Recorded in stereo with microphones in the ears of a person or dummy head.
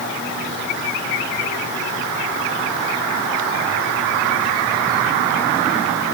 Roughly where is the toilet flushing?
I don't hear a toilet flushing.